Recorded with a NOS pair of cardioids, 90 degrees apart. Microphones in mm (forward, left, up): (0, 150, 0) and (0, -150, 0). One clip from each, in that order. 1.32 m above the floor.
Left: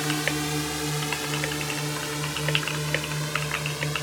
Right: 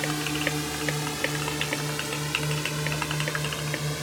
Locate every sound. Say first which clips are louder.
0.0 s a drone: left 1 dB; 25° left; by 4.0 s 5° left